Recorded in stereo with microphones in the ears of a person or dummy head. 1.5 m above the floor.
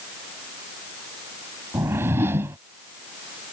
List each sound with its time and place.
1.7 s a whoosh: 15° right (ahead or behind)